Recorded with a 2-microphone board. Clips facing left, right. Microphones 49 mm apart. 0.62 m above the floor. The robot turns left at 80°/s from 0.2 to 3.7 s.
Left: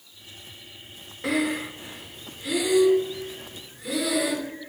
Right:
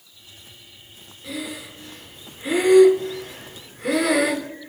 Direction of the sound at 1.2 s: 70° left (ahead or behind).